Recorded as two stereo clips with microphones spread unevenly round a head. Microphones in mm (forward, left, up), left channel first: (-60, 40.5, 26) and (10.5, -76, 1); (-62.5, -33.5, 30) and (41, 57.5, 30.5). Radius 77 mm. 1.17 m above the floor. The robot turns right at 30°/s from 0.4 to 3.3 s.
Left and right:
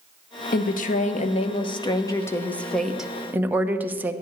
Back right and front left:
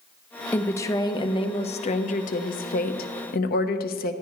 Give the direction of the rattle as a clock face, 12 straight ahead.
No rattle in this recording.